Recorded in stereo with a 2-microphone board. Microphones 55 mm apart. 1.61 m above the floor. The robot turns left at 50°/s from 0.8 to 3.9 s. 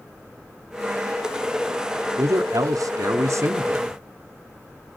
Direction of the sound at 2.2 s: 55° right.